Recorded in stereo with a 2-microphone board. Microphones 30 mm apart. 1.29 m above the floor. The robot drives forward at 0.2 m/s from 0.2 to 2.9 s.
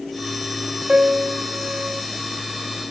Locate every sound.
0.9 s a piano: 65° right (ahead or behind), 0.7 m; by 2.0 s 75° right (ahead or behind), 0.6 m